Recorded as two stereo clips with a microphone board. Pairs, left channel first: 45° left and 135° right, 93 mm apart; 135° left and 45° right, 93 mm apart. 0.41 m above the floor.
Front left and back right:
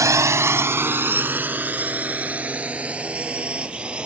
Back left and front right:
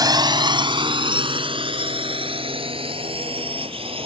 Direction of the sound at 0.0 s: 85° right.